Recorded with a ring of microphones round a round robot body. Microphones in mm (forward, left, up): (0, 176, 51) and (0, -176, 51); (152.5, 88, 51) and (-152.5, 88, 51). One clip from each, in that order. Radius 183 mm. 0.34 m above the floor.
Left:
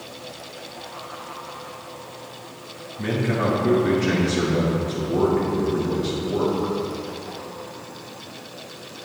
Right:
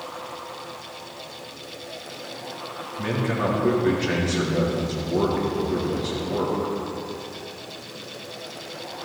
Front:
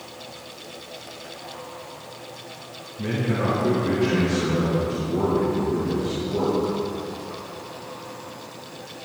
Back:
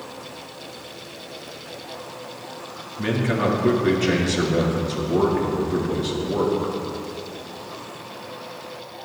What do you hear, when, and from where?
3.0 s a man speaking: 170° right, 5.5 m